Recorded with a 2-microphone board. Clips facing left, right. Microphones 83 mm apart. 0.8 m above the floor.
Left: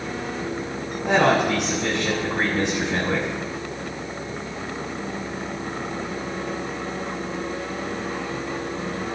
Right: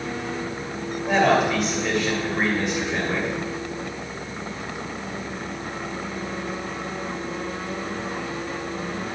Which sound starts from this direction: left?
A man speaking, at 1.0 s.